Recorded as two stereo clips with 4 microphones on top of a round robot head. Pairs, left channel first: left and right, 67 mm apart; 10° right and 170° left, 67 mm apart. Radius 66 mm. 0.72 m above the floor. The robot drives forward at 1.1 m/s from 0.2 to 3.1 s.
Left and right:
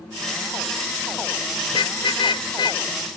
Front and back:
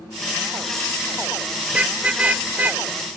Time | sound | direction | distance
1.7 | a car horn | 95° left | ?